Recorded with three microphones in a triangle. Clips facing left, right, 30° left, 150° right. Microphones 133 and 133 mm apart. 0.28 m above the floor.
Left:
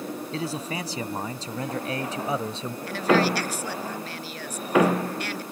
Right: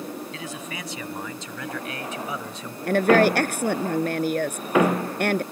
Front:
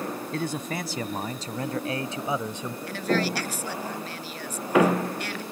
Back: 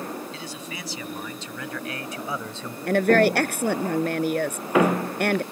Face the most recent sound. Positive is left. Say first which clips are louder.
# right 4 dB, back 9 dB
turn(degrees=-120)